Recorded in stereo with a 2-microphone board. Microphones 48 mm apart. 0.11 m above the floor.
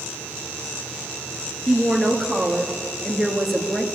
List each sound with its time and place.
1.7 s a woman speaking: 5° right (ahead or behind), 1.7 m